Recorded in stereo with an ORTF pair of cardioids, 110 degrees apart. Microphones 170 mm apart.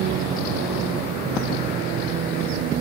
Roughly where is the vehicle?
Ahead right.